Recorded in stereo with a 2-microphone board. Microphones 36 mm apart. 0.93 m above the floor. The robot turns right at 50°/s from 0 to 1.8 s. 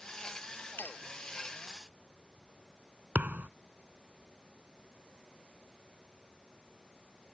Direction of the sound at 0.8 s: 80° left.